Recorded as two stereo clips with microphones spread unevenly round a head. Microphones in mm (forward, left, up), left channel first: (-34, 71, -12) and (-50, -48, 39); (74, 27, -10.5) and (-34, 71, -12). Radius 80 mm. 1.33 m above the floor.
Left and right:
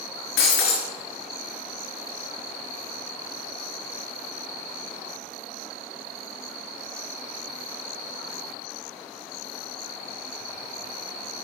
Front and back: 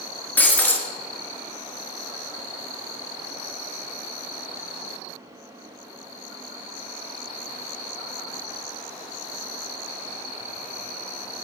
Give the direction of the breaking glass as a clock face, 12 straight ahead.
10 o'clock.